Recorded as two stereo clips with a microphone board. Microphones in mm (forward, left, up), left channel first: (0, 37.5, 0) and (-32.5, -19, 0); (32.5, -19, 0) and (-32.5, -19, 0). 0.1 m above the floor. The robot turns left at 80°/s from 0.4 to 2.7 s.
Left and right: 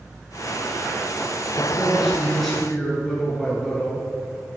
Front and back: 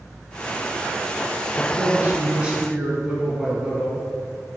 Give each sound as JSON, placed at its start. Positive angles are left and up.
{"t": 1.6, "sound": "a man speaking", "azimuth_deg": -145, "distance_m": 1.2}